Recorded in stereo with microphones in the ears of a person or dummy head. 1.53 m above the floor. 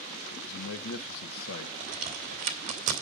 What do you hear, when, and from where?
0.3 s a man speaking: 80° left, 2 m
1.8 s a crack: 40° right (ahead or behind), 3 m